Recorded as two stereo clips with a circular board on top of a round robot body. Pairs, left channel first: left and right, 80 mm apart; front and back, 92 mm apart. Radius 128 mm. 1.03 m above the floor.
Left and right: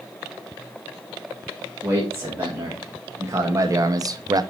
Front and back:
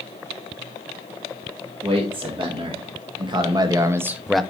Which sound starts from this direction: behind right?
A man speaking, at 1.8 s.